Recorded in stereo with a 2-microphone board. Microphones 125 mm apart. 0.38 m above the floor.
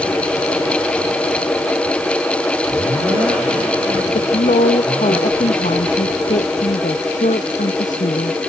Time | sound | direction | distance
4.2 | a woman speaking | 85° left | ?